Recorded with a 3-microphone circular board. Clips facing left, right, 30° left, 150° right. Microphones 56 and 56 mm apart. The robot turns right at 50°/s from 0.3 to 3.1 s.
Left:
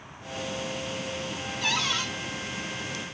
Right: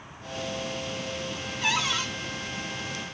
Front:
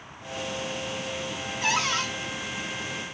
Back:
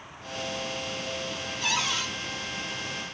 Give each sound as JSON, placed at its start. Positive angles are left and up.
{"t": 1.6, "sound": "a cupboard door", "azimuth_deg": -25, "distance_m": 1.1}